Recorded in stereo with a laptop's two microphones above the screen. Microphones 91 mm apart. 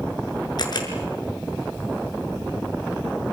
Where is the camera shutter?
50° left (ahead or behind), 6 m.